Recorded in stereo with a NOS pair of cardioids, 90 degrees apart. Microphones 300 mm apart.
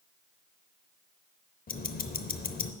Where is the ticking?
30° left, 0.7 m.